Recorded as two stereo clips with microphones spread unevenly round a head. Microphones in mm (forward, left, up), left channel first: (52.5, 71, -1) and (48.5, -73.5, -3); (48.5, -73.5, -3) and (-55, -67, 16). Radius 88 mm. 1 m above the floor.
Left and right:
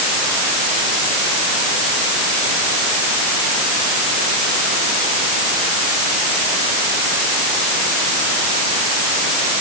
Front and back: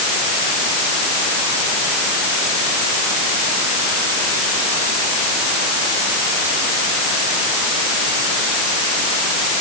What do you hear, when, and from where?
Only background noise.